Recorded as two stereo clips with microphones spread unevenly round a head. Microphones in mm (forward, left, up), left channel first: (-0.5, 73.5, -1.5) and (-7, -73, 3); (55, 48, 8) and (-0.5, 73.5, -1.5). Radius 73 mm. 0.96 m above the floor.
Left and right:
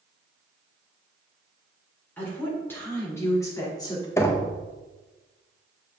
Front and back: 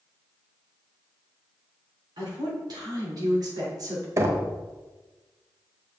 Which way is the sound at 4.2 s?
155° left.